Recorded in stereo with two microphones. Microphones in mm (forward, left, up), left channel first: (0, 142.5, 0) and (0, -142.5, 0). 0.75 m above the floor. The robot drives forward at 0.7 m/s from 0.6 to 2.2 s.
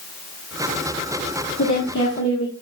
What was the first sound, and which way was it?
A woman speaking, 75° left (ahead or behind).